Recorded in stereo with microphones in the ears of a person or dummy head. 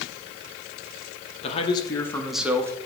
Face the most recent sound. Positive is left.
turn(degrees=-20)  # may be behind; listen again after turning